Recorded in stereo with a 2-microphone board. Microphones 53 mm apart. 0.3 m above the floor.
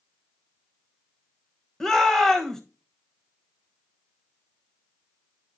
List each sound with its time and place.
1.8 s a shout: 10° left (ahead or behind), 1.2 m